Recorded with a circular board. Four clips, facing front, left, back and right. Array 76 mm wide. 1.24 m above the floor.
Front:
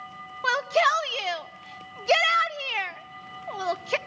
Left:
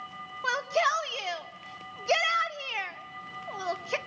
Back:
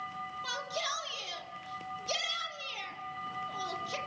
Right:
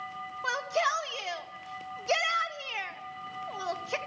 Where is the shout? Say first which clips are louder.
Left 2 dB, front 18 dB; 5° left, 1.8 m.